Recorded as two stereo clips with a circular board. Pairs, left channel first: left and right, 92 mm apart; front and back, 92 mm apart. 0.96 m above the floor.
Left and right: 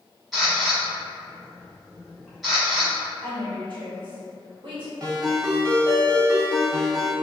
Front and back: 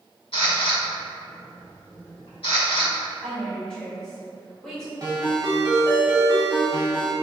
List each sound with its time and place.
0.3 s a camera shutter: straight ahead, 2.0 m
3.2 s a woman speaking: 80° right, 1.8 m
5.0 s a ringtone: 130° right, 1.5 m